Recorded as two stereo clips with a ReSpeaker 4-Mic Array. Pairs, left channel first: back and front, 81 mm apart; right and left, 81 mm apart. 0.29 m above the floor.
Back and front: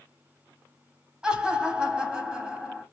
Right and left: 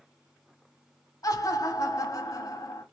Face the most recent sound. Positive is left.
turn(degrees=-75)